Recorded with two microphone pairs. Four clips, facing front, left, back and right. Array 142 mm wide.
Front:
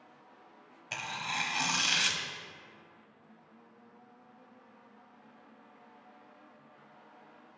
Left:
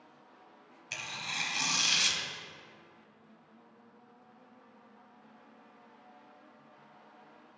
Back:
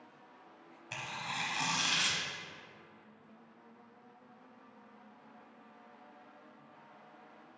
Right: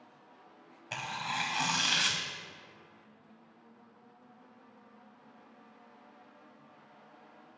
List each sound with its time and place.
0.9 s tearing paper: 75° right, 0.6 m